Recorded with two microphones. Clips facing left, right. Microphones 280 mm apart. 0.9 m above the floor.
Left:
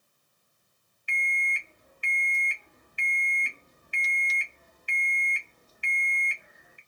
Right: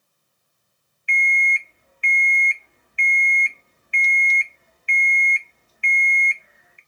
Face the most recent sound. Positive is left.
turn(degrees=50)  # may be behind; listen again after turning